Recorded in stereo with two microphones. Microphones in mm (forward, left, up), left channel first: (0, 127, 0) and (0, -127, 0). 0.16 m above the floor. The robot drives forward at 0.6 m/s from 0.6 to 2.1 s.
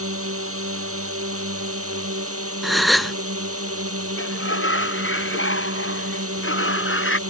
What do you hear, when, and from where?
0.0 s a drone: 60° right (ahead or behind); by 7.3 s 65° right (ahead or behind)
2.6 s a gasp: centre (ahead or behind)
4.2 s a sliding door: 55° left (ahead or behind)